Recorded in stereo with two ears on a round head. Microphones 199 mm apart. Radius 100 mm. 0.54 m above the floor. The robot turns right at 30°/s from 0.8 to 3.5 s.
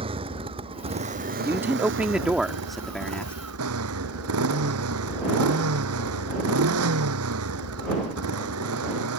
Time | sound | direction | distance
0.0 | a motorcycle | 155° right | ?
1.4 | a man speaking | 10° right (ahead or behind) | ?